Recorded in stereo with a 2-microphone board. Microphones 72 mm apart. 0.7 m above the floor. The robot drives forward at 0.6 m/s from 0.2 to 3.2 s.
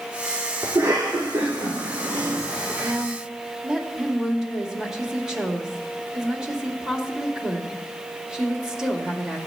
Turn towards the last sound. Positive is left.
turn(degrees=-10)  # may be behind; listen again after turning